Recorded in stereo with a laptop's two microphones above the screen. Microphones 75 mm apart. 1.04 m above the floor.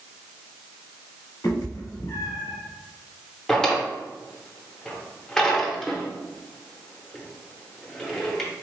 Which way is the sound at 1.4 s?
60° left (ahead or behind).